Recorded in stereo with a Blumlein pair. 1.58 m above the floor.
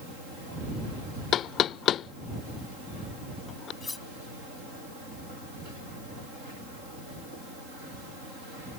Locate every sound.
1.3 s knocking: 30° left
3.8 s cutlery clinking: 15° left